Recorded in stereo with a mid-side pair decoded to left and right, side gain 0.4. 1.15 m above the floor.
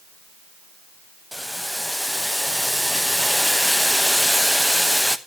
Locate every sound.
1.3 s boiling: straight ahead, 0.7 m